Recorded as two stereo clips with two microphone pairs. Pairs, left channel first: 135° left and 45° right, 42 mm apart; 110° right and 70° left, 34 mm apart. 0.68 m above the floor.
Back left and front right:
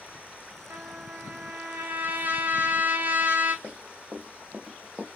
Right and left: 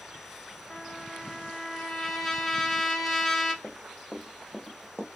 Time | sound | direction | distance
0.7 | a trumpet | 20° right | 1.3 m
3.6 | running footsteps | 45° right | 1.2 m